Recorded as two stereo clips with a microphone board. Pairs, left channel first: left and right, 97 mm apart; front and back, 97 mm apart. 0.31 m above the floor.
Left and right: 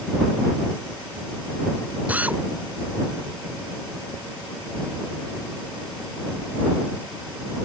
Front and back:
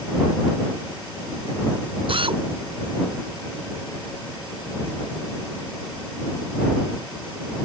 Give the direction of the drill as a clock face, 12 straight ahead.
5 o'clock.